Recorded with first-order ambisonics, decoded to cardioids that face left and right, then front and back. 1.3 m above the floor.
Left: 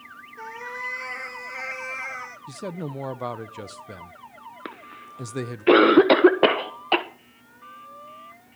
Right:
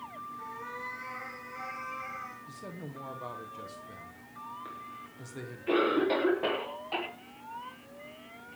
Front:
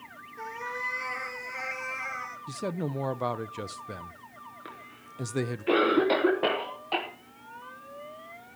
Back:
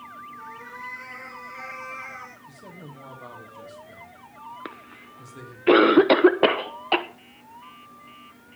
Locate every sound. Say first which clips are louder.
0.4 s a cat meowing: left 9 dB, front 8 dB; 60° left, 3 m; by 2.4 s 80° left, 1.9 m
2.5 s a man speaking: left 10 dB, front 10 dB; 40° left, 0.8 m
4.7 s a cough: left 4 dB, back 4 dB; 125° left, 1.1 m